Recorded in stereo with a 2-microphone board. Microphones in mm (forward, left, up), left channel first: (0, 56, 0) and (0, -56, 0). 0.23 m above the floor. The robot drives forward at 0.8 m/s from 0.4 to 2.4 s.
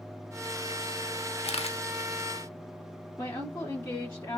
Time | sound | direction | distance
1.4 | a camera shutter | 65° left (ahead or behind) | 0.5 m
3.2 | a woman speaking | 25° left (ahead or behind) | 2.5 m